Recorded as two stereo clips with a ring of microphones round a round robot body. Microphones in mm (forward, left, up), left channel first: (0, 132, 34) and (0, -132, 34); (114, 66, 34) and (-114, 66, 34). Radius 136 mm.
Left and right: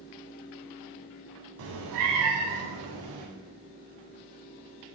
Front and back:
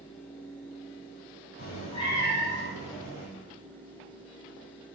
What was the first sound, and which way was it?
A cat meowing, 55° right.